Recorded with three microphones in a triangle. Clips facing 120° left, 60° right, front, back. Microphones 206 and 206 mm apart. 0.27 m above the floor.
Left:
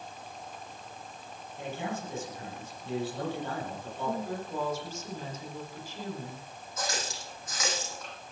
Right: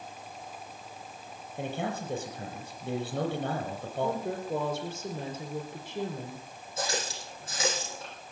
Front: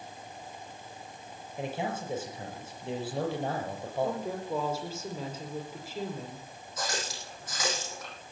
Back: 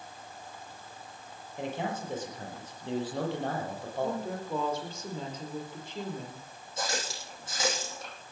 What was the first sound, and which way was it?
A man speaking, 80° right.